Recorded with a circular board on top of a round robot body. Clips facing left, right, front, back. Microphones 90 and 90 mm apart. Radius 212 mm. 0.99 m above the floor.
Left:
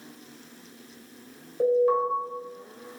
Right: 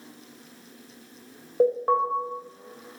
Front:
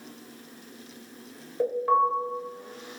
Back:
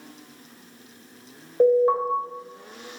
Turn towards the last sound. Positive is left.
turn(degrees=-130)